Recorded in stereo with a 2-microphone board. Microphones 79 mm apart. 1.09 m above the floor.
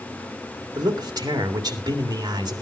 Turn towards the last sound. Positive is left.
turn(degrees=-55)  # may be behind; listen again after turning